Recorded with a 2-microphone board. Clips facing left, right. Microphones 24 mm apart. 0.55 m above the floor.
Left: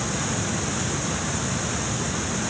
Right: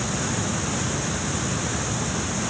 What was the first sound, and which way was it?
Only background noise.